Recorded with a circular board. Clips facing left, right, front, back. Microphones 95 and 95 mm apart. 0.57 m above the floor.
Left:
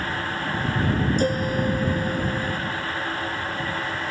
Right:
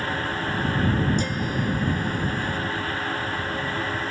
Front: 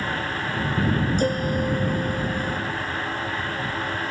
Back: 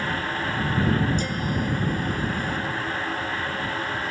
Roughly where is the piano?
Ahead left.